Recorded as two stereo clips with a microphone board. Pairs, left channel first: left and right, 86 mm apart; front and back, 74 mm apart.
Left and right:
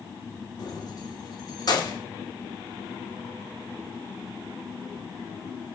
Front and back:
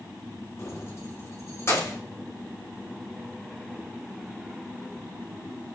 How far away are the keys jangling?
About 2 m.